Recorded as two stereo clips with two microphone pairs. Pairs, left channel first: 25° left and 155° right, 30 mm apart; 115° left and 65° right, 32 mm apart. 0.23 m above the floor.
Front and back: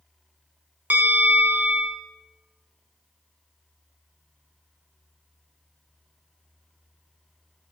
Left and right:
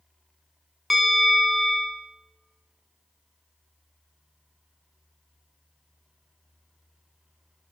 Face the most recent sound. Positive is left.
turn(degrees=-155)